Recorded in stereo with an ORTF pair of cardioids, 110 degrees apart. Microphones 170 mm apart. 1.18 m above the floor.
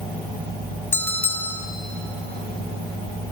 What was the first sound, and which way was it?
A bell, 15° left.